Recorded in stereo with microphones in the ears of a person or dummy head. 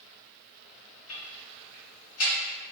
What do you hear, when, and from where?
1.1 s ticking: 70° left (ahead or behind), 1.7 m